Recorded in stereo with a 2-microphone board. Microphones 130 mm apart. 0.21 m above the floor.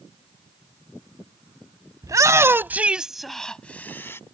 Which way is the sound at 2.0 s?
30° right (ahead or behind).